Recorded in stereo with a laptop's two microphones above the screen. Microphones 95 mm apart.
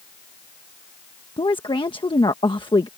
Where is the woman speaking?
60° left (ahead or behind).